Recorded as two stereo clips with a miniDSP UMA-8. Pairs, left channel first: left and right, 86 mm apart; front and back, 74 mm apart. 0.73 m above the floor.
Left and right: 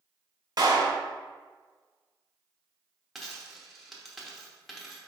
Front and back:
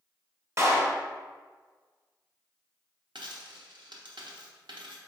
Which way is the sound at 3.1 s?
Straight behind.